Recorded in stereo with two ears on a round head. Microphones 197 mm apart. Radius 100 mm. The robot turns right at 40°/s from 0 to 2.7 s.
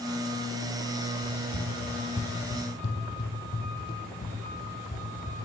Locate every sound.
1.2 s running footsteps: 25° left (ahead or behind), 2.5 m; by 5.3 s 35° left (ahead or behind), 4 m